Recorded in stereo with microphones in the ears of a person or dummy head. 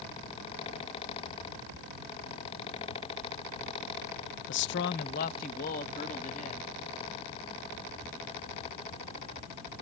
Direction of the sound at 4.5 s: 65° left (ahead or behind).